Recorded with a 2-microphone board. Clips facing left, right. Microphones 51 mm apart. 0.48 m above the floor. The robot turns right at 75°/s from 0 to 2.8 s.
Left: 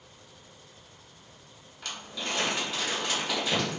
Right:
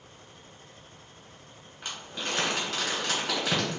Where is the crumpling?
15° right (ahead or behind), 1.9 m; by 3.8 s 90° right, 1.9 m.